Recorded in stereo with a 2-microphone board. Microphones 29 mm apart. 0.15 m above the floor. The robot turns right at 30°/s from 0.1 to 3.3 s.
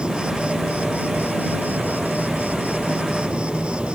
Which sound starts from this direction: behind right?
An insect, at 0.0 s.